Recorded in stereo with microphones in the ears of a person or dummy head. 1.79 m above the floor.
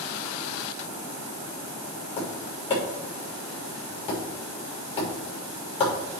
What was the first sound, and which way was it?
Tapping, 30° left (ahead or behind).